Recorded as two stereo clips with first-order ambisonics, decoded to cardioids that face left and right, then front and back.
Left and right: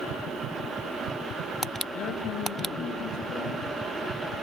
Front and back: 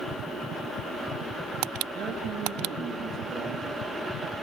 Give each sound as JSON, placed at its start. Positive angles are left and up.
{"t": 1.9, "sound": "a man speaking", "azimuth_deg": 115, "distance_m": 8.0}